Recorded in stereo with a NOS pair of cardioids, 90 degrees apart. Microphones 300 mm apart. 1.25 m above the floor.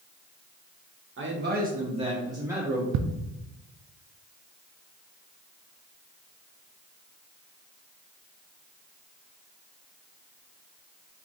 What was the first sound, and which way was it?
A man speaking, 40° right.